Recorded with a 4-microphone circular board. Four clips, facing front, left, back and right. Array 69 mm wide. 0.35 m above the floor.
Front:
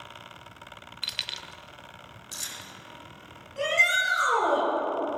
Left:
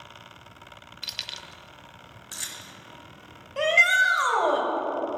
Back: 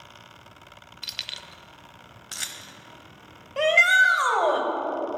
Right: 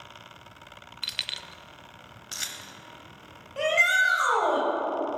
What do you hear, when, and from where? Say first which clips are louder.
1.0 s keys jangling: right 2 dB, front 1 dB; 40° right, 0.5 m; by 2.7 s 150° right, 1.2 m
3.6 s a shout: left 2 dB, back 6 dB; 170° left, 2.5 m